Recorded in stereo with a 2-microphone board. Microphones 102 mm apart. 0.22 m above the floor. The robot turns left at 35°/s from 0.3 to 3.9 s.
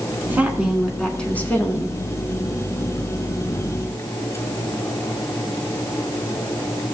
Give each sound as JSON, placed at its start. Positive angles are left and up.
{"t": 0.3, "sound": "a woman speaking", "azimuth_deg": -160, "distance_m": 2.0}